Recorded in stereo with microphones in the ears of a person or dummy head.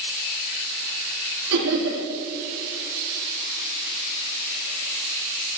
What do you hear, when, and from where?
1.5 s laughter: 85° right, 3.5 m